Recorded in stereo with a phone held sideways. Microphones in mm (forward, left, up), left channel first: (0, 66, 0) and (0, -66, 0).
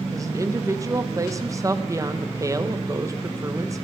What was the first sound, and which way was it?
A woman speaking, 25° right (ahead or behind).